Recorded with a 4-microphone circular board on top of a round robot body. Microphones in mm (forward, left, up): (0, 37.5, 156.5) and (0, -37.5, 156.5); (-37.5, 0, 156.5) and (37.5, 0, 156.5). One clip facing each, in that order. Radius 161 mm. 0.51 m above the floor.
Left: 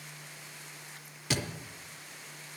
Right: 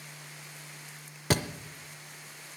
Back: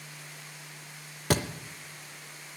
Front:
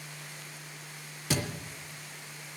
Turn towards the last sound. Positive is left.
turn(degrees=-140)